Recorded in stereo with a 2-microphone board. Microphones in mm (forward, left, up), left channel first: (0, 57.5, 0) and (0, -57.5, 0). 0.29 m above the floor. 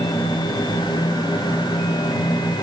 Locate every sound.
Only background noise.